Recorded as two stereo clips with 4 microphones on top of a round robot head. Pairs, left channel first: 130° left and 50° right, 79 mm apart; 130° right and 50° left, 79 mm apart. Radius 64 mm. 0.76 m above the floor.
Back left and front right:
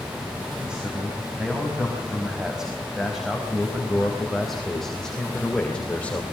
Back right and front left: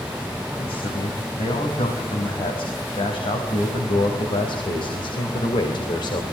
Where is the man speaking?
130° right, 5.5 m; by 6.2 s 160° right, 3 m.